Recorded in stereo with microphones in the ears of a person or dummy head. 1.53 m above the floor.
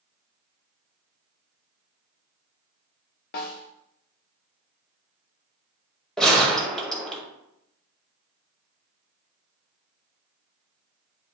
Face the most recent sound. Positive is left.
turn(degrees=0)  # may be behind; listen again after turning